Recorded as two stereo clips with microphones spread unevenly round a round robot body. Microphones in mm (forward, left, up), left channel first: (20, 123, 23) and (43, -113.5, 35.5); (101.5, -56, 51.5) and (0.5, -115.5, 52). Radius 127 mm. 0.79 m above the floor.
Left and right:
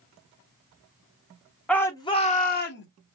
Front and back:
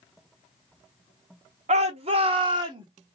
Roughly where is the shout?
Behind.